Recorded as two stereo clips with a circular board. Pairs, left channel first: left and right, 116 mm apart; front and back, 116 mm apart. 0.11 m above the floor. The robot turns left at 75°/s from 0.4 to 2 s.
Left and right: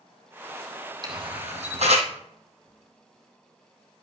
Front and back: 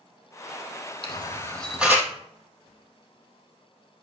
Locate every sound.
1.0 s a camera shutter: 40° right, 2 m; by 2.1 s 115° right, 2 m